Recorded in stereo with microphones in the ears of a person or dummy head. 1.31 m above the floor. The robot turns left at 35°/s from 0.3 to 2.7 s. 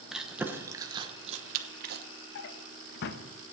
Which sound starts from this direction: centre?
Chewing, at 0.1 s.